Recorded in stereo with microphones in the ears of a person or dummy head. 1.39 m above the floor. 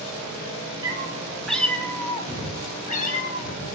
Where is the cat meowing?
20° right (ahead or behind), 1.7 m; by 3.8 s 55° left (ahead or behind), 3 m.